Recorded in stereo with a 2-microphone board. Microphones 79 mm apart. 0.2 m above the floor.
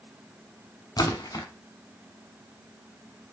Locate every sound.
1.0 s a splash: 55° left (ahead or behind), 0.7 m